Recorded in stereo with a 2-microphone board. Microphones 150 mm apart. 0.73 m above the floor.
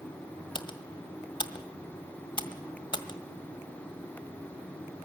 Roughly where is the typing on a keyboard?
Left.